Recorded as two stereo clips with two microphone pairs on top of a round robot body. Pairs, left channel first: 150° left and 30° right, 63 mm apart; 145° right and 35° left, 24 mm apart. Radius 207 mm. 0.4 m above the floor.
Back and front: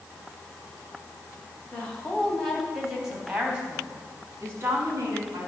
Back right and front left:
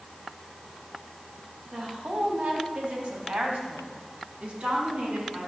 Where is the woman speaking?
75° left, 4 m; by 5.5 s 10° left, 4.5 m.